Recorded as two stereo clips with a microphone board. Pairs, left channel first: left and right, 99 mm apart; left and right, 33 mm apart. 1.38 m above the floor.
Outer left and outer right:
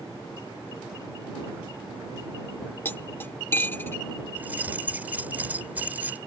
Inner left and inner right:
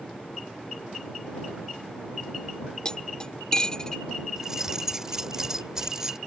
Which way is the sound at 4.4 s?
15° right (ahead or behind).